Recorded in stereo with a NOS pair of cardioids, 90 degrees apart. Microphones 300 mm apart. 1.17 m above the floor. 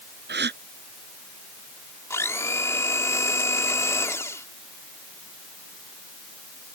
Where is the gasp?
35° right.